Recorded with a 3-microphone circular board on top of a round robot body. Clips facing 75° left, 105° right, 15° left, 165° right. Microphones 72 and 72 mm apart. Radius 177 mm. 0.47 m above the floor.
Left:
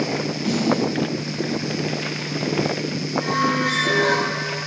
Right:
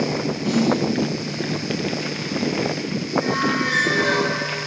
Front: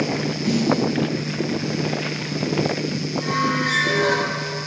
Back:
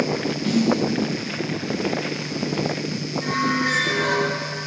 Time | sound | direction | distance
0.4 | a snare drum | 80° left | 3.5 m
3.2 | a squeak | 55° left | 3 m